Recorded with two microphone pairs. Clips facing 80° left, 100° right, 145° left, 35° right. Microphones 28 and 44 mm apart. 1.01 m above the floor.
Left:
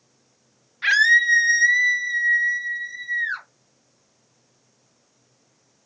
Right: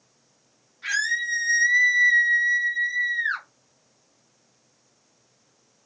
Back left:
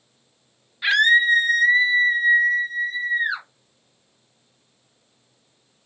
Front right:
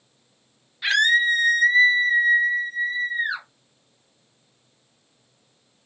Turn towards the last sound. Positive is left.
turn(degrees=-125)